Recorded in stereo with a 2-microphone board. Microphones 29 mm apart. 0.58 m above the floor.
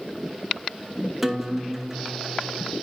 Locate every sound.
1.2 s a guitar: 5° right (ahead or behind), 0.9 m